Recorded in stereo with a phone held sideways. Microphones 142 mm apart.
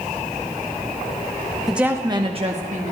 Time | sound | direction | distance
1.7 | a woman speaking | centre (ahead or behind) | 0.7 m